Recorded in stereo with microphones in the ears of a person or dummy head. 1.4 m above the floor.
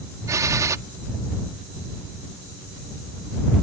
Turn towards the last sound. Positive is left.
turn(degrees=-15)  # may be behind; listen again after turning